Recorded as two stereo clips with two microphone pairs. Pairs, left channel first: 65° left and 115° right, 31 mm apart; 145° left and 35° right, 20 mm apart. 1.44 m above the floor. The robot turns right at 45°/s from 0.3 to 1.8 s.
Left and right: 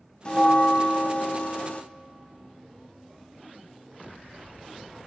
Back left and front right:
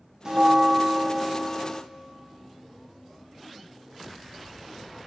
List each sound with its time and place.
0.2 s a bell: 15° left, 0.5 m; by 1.8 s 80° left, 0.5 m